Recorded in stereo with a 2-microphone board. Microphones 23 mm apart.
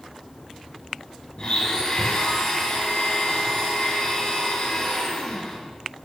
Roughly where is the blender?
Left.